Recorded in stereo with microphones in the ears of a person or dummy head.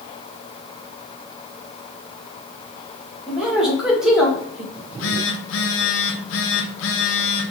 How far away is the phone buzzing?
About 0.6 m.